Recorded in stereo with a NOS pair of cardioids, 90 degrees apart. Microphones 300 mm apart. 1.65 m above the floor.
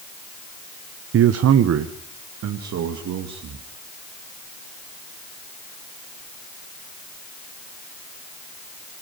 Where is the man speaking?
50° right, 1.0 m; by 3.6 s 70° right, 3.5 m.